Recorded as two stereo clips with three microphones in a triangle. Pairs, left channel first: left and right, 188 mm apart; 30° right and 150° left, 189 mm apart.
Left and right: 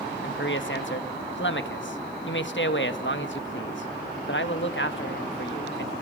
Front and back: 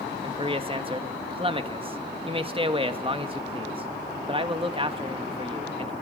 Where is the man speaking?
90° left, 1.6 m.